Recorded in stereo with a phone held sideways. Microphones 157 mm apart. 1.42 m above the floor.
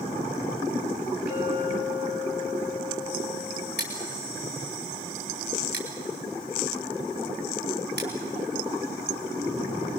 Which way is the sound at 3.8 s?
85° right.